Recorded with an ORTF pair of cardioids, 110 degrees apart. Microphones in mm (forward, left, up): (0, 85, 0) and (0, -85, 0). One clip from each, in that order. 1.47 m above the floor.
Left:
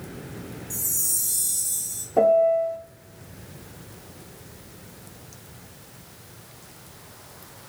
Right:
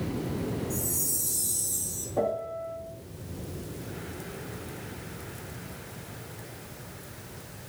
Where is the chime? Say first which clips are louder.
Left 3 dB; 55° left, 2.5 m.